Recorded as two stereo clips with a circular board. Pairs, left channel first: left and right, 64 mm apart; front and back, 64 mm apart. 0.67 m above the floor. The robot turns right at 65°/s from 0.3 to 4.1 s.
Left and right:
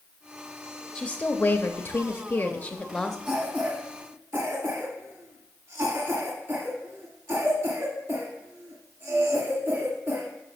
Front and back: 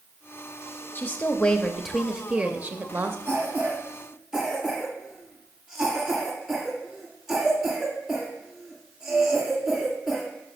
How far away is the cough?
About 1.7 m.